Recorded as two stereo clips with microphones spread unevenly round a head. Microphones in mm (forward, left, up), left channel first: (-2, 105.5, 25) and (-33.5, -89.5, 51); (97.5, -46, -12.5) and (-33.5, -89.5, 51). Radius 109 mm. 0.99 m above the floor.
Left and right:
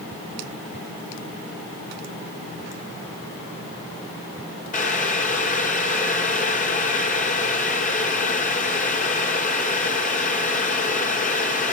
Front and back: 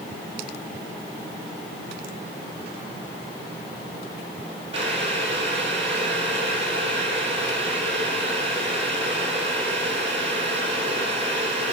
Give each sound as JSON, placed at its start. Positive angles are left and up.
{"t": 4.7, "sound": "boiling", "azimuth_deg": 130, "distance_m": 5.0}